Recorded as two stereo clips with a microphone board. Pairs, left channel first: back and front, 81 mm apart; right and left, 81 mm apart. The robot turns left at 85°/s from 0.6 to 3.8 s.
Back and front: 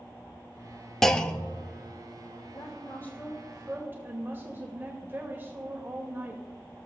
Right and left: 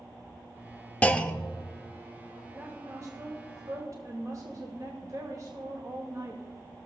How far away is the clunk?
About 0.6 m.